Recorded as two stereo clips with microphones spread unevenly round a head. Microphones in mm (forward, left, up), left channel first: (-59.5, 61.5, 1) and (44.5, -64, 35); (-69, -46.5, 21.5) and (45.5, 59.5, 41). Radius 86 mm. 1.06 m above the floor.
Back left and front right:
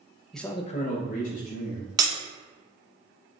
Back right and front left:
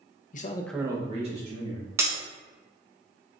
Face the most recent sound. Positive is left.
turn(degrees=-15)